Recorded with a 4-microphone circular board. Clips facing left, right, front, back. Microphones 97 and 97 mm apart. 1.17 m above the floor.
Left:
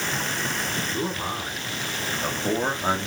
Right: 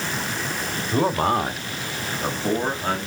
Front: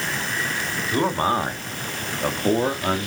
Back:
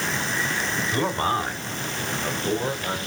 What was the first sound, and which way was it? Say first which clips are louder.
A man speaking: right 13 dB, front 4 dB; 75° right.